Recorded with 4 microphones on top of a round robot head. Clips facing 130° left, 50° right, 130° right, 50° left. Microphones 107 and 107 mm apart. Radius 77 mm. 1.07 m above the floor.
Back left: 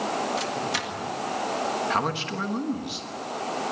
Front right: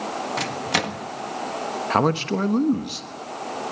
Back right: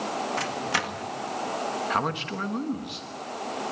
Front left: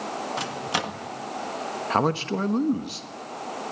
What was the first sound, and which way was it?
A microwave, 20° right.